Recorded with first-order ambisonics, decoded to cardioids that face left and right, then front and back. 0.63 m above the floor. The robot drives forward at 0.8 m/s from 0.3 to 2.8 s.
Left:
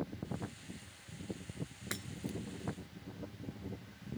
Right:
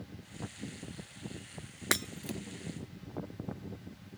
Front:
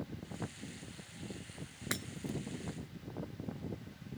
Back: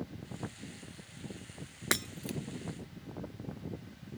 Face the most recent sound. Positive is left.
turn(degrees=-155)